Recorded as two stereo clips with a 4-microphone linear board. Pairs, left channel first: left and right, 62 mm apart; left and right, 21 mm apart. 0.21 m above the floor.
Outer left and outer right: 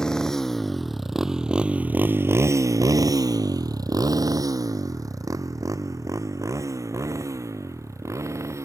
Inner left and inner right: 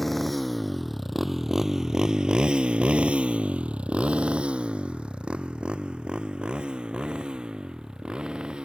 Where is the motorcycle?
10° left (ahead or behind); by 8.7 s 50° right (ahead or behind).